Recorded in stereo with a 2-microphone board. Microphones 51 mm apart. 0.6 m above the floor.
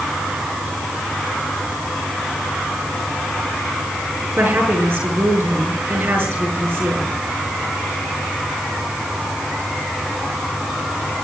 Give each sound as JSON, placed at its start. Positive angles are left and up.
{"t": 4.4, "sound": "a woman speaking", "side_deg": -50, "distance_m": 8.0}